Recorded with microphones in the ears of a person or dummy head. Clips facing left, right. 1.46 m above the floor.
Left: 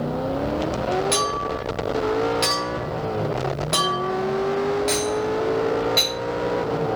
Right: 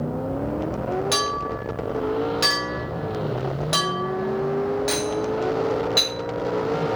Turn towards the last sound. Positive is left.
turn(degrees=-15)  # may be behind; listen again after turning